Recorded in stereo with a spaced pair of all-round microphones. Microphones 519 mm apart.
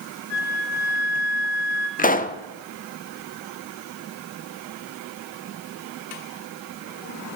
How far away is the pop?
About 0.5 m.